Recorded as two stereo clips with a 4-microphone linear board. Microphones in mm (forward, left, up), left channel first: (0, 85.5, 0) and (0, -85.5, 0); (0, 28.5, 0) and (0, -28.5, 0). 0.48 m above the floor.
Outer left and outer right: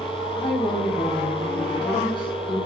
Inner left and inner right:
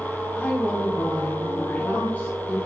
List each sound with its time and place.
0.3 s a woman speaking: 25° left (ahead or behind), 1.3 m